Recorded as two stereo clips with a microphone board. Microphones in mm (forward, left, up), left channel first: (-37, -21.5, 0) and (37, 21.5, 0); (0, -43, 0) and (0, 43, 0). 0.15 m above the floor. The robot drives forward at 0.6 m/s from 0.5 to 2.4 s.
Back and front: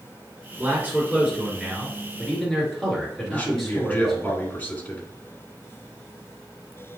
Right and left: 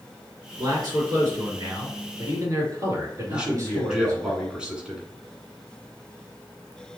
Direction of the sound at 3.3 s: 160° left.